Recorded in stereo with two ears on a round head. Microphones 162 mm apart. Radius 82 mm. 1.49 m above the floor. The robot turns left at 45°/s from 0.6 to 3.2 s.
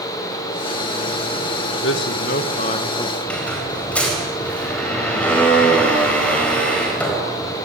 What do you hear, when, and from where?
1.8 s a man speaking: 70° left, 1.6 m; by 3.1 s 15° left, 1.6 m
3.2 s a squeak: 5° left (ahead or behind), 4.5 m